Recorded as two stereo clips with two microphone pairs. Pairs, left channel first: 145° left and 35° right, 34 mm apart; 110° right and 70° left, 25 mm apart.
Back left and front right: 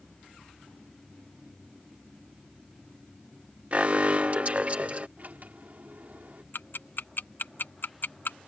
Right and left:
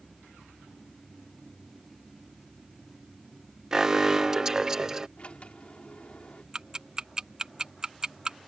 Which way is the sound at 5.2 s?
70° right.